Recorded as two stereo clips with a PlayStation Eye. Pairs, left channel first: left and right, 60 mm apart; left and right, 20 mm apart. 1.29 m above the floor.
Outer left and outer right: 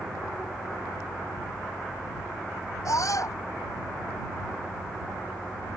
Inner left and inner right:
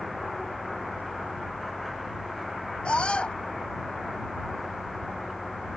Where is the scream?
60° left (ahead or behind).